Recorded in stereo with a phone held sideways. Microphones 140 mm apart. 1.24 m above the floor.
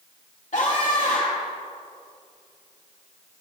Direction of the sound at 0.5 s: 65° left (ahead or behind).